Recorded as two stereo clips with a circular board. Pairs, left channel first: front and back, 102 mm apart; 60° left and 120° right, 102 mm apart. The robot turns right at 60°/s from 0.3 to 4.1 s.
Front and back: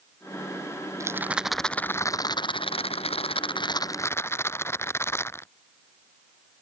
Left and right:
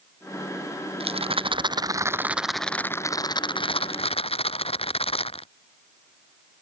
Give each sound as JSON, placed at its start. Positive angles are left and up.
{"t": 1.0, "sound": "a rattle", "azimuth_deg": -125}